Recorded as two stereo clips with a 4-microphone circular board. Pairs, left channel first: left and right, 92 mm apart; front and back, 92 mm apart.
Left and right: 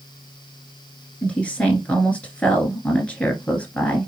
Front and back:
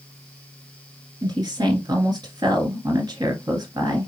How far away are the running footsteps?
I don't hear running footsteps.